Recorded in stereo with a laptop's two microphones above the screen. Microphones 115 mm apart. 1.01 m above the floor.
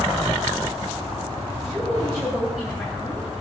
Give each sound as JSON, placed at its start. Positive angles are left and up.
{"t": 1.6, "sound": "a woman speaking", "side_deg": -5, "distance_m": 6.5}